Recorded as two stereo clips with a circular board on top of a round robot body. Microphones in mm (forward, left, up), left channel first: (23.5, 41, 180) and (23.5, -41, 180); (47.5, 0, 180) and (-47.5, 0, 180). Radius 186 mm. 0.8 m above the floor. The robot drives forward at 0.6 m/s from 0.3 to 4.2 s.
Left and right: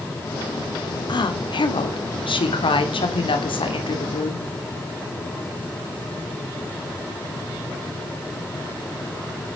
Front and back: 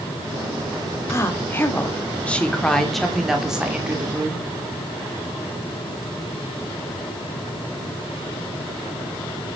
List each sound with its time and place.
1.1 s a woman speaking: 65° left, 2.5 m; by 4.5 s 105° left, 2.5 m